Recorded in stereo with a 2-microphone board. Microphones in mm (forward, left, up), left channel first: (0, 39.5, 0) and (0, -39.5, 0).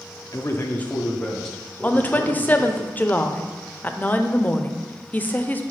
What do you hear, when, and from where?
0.3 s a man speaking: 45° left (ahead or behind), 0.7 m; by 2.8 s centre (ahead or behind), 3 m
1.8 s a woman speaking: 20° left (ahead or behind), 0.5 m